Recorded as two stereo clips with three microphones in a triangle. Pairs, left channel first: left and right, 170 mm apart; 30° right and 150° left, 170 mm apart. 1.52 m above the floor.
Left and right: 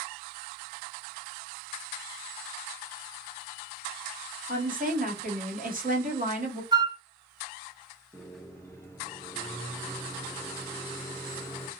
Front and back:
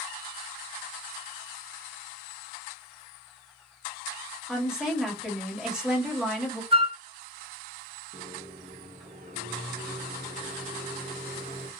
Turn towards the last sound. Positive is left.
turn(degrees=160)